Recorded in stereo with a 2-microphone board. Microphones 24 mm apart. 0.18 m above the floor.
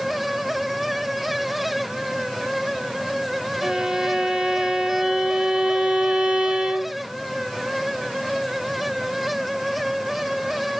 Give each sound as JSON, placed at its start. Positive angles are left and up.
{"t": 3.6, "sound": "a violin", "side_deg": -25, "distance_m": 0.8}